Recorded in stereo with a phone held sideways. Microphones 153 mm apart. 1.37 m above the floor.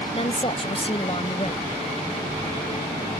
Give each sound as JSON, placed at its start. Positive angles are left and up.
{"t": 0.1, "sound": "a woman speaking", "side_deg": 40}